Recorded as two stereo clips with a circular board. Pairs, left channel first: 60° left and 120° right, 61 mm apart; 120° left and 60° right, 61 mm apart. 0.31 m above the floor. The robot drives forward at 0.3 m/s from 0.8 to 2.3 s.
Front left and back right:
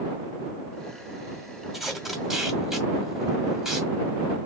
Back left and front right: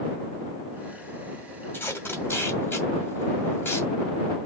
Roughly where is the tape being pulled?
Behind left.